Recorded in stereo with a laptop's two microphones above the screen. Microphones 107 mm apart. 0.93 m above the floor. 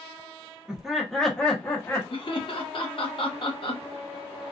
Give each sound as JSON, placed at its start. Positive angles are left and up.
{"t": 0.7, "sound": "laughter", "side_deg": -5, "distance_m": 0.8}
{"t": 2.1, "sound": "laughter", "side_deg": 50, "distance_m": 0.9}